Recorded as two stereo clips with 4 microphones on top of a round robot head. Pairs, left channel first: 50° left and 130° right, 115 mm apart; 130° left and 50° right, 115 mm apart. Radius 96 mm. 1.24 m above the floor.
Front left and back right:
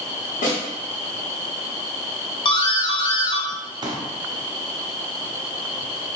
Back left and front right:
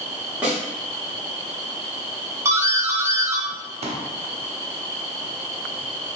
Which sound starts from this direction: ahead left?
A snare drum, at 0.4 s.